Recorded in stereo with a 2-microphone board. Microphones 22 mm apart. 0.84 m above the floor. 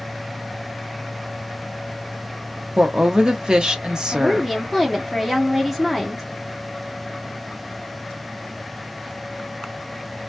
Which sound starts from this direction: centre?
A woman speaking, at 4.1 s.